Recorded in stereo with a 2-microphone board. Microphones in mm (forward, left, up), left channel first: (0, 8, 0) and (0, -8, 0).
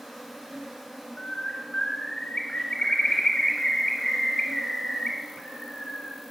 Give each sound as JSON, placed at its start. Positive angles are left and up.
{"t": 0.0, "sound": "an insect", "side_deg": -30, "distance_m": 1.4}
{"t": 1.2, "sound": "a bird", "side_deg": 55, "distance_m": 0.9}